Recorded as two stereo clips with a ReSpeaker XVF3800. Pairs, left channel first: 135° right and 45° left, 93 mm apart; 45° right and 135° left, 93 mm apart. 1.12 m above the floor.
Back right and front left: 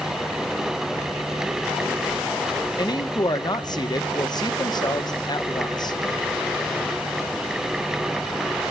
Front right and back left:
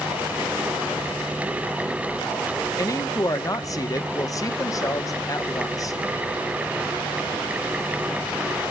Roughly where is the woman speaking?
Right.